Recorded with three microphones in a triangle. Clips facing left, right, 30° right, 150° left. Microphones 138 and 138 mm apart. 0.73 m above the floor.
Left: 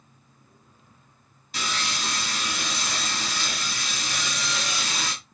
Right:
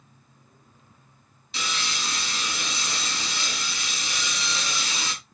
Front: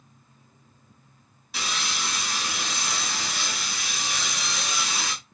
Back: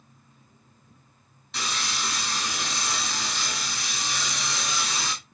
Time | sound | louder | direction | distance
1.5 | sawing | left 2 dB, even | 50° left | 5 m